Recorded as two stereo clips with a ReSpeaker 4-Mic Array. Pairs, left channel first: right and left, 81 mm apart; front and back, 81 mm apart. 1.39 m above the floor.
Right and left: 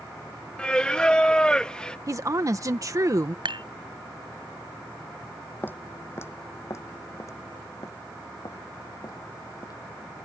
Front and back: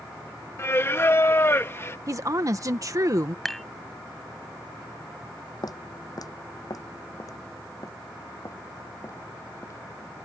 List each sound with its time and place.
0.6 s singing: 20° right
2.1 s a woman speaking: 135° left
3.5 s dishes clattering: 90° left
5.6 s footsteps: 25° right; by 9.8 s 50° right